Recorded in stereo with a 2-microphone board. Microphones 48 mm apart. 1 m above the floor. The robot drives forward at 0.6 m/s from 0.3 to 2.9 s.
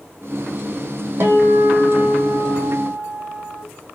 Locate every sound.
1.2 s a guitar: 55° right (ahead or behind), 1.3 m; by 3.6 s 30° right (ahead or behind), 2 m